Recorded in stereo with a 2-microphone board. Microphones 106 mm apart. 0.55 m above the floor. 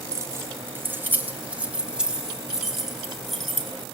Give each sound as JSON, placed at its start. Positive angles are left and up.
{"t": 0.1, "sound": "keys jangling", "side_deg": -30, "distance_m": 2.0}